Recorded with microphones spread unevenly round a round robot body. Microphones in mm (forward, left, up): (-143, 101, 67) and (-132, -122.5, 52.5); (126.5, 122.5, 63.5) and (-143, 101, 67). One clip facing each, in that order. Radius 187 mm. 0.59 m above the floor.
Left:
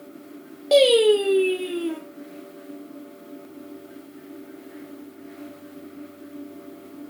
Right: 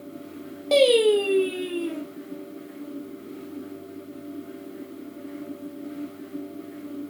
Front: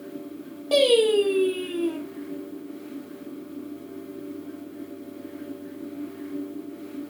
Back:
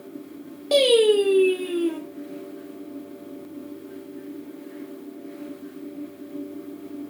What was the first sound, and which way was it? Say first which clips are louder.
Singing: left 2 dB, back 2 dB; straight behind.